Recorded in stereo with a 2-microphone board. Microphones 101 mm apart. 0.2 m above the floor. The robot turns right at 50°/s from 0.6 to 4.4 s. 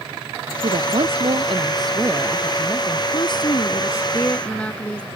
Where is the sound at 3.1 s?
100° left; by 5.1 s 165° left.